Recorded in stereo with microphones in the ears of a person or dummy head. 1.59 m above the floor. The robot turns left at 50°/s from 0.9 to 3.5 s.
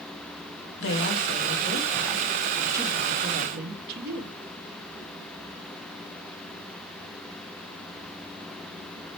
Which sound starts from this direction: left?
A woman speaking, at 0.8 s.